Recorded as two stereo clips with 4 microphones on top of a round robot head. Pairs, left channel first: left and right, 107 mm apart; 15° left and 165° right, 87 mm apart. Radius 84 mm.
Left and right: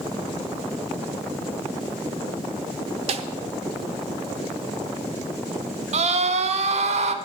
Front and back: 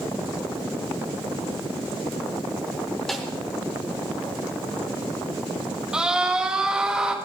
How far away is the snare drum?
About 0.9 m.